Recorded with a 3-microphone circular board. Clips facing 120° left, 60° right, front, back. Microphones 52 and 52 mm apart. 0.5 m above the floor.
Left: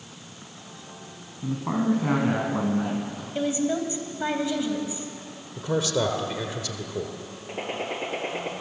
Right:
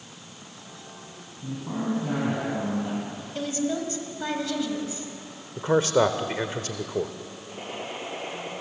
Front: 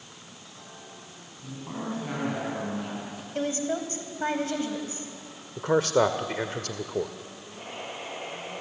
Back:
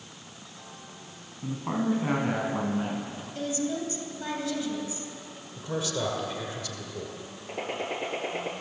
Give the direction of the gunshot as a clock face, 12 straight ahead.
7 o'clock.